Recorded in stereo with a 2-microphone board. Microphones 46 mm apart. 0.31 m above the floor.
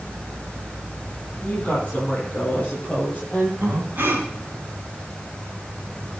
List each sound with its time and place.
1.4 s a woman speaking: 20° left (ahead or behind), 8.5 m; by 3.5 s 35° left (ahead or behind), 9 m
3.6 s breathing: 45° right (ahead or behind), 3 m